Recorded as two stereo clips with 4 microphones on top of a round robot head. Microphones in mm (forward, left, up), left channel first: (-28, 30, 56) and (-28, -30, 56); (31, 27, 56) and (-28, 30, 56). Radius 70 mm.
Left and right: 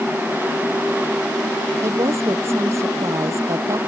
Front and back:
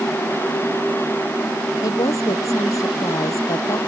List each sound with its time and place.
1.8 s a woman speaking: 40° right; by 3.8 s 45° right